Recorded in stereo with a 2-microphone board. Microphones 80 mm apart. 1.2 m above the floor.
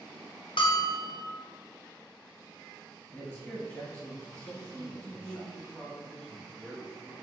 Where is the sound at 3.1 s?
25° left (ahead or behind), 1.7 m.